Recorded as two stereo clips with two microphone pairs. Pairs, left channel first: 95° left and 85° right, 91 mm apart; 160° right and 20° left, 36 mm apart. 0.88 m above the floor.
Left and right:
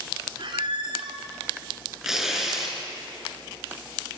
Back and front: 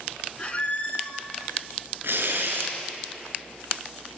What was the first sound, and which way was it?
A squeak, 110° right.